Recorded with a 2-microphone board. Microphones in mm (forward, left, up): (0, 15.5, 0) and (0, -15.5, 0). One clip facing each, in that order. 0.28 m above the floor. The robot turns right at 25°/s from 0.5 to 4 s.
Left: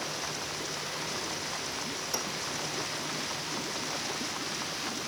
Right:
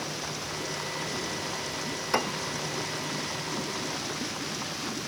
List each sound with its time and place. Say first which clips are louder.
2.1 s a piano: right 9 dB; 45° right (ahead or behind); by 2.5 s 35° right (ahead or behind)